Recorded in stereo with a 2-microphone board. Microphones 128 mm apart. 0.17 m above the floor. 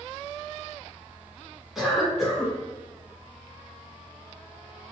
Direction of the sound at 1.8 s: Centre (ahead or behind).